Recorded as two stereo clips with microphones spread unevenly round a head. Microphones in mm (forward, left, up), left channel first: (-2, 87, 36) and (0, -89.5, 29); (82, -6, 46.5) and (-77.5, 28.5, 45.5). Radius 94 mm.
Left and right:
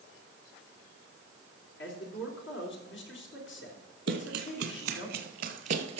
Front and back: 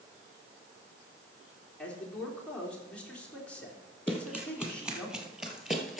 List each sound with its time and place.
1.8 s a man speaking: 70° left, 3.5 m
4.1 s running footsteps: 110° right, 1.8 m; by 6.0 s 105° right, 1.0 m